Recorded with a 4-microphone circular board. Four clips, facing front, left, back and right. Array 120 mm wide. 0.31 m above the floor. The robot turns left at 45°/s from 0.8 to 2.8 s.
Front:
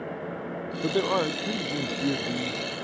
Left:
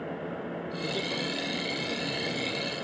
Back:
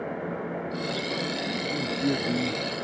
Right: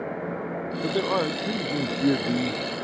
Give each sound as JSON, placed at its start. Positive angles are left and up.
{"t": 0.8, "sound": "a man speaking", "azimuth_deg": -35}